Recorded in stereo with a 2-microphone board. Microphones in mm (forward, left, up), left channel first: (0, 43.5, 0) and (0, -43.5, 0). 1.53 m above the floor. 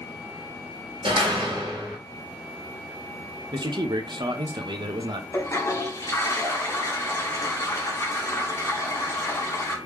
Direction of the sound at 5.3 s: 30° left (ahead or behind).